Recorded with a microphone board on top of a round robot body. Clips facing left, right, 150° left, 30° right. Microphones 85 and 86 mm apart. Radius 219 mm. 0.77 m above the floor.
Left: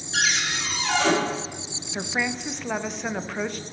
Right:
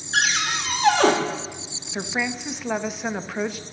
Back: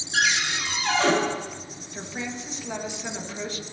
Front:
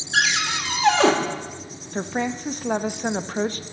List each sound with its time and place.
0.1 s a cupboard door: 45° right, 1.2 m
1.9 s a woman speaking: 5° right, 0.7 m